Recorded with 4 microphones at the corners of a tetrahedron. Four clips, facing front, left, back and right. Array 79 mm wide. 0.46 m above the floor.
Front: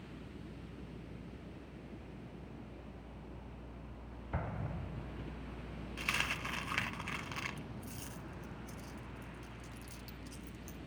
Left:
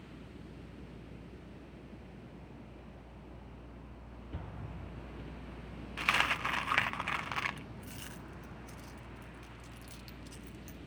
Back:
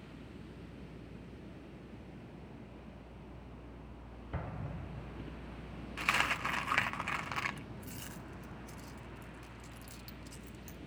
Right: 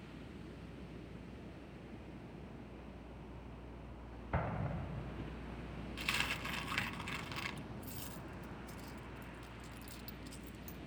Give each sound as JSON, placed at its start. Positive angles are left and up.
{"t": 4.3, "sound": "an explosion", "azimuth_deg": -75, "distance_m": 0.7}
{"t": 6.0, "sound": "a dropped coin", "azimuth_deg": 125, "distance_m": 0.6}